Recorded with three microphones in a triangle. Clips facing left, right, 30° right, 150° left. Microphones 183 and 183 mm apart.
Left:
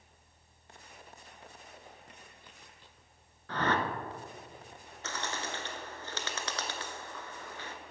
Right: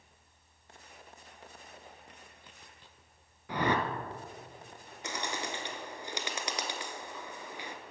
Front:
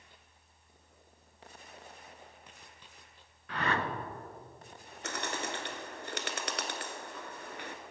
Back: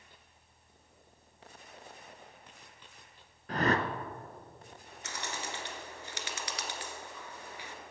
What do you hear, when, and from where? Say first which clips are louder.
3.5 s a whoosh: right 1 dB, back 4 dB; 165° right, 0.8 m
5.0 s a bird: right 1 dB, front 4 dB; 15° right, 1.0 m